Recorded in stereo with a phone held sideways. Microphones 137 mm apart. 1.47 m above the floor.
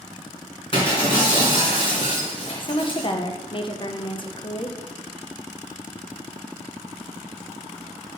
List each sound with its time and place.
0.7 s breaking glass: 40° left (ahead or behind), 3 m
2.6 s a woman speaking: 35° left (ahead or behind), 0.8 m